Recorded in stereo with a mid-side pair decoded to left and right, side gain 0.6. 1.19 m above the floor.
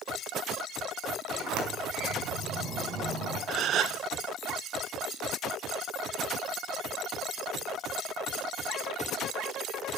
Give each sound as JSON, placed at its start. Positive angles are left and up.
{"t": 1.3, "sound": "a sliding door", "azimuth_deg": -60, "distance_m": 4.5}
{"t": 3.5, "sound": "a gasp", "azimuth_deg": -55, "distance_m": 0.8}